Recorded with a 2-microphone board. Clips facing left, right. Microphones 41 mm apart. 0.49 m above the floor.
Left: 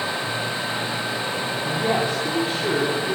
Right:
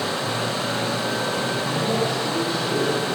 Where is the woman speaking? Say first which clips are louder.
Left 4 dB; 80° left, 3.5 m.